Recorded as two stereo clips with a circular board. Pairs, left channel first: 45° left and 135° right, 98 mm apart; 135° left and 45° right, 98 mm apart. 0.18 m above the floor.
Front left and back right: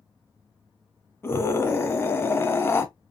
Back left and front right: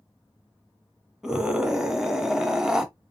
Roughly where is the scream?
Ahead left.